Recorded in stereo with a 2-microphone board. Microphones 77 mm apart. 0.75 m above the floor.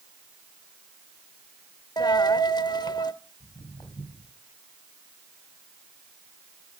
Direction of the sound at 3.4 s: 80° left.